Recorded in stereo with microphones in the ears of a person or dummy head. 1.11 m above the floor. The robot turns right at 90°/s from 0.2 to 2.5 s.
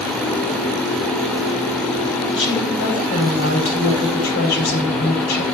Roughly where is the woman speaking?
Left.